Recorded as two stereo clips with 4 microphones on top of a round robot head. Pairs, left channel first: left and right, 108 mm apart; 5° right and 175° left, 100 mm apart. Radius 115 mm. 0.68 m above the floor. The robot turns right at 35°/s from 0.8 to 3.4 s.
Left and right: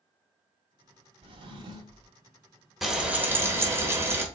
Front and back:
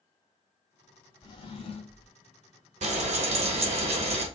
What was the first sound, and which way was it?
A drawer, 55° right.